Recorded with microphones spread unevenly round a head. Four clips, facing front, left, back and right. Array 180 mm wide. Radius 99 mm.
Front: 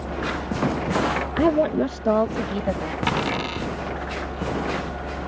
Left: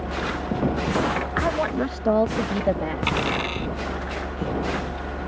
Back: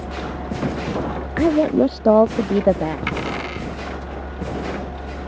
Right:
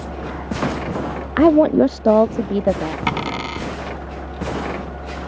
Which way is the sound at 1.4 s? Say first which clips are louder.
Right 15 dB, back 4 dB; 75° right.